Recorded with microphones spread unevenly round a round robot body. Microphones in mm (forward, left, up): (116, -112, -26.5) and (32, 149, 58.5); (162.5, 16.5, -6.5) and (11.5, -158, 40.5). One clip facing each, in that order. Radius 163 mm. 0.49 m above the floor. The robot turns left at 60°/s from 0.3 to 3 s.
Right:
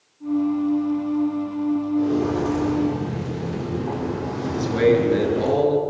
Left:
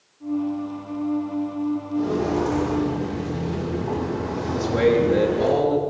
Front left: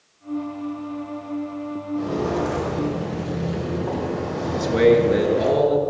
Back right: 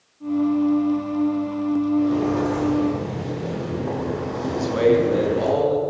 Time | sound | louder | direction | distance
1.9 | footsteps | left 1 dB, back right 4 dB | 30° left | 9 m
4.5 | a man speaking | right 1 dB, front left 2 dB | 20° right | 6 m